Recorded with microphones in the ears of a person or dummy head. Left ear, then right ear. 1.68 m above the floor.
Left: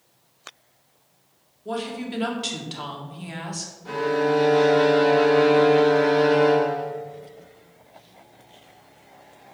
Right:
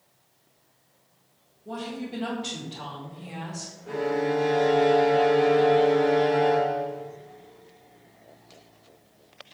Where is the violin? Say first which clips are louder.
Left 4 dB; 40° left (ahead or behind), 1.7 m.